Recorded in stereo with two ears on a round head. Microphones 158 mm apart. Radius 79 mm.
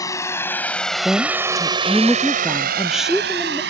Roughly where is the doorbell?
No doorbell in this recording.